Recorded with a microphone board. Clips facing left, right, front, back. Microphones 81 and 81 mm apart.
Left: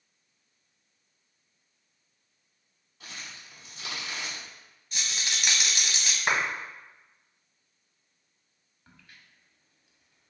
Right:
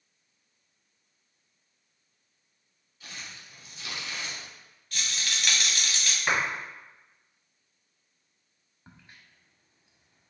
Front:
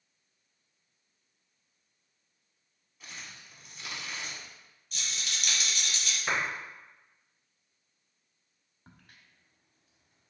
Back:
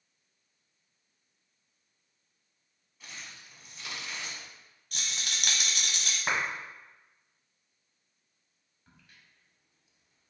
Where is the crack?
30° right, 0.5 m.